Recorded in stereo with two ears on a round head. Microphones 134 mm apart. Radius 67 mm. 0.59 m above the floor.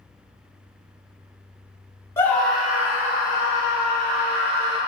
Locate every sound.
2.2 s a scream: 15° left (ahead or behind), 1.0 m; by 4.8 s 40° right (ahead or behind), 2.5 m